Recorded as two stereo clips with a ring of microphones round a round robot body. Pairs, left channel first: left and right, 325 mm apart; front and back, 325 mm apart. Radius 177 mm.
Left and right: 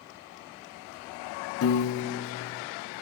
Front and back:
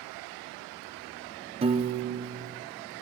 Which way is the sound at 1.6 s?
115° left.